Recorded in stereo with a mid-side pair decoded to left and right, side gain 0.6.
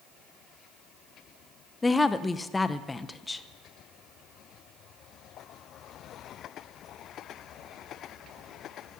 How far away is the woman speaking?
About 0.7 m.